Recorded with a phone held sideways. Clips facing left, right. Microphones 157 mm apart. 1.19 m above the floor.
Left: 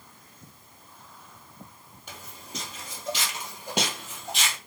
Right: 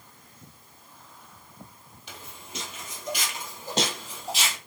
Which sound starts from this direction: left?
Footsteps, at 2.1 s.